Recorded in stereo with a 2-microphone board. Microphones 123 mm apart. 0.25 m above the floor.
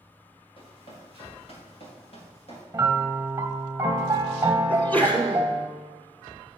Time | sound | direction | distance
0.6 | running footsteps | 45° left (ahead or behind) | 4.5 m
2.7 | a piano | 20° right (ahead or behind) | 1.4 m
4.7 | a sneeze | 15° left (ahead or behind) | 2 m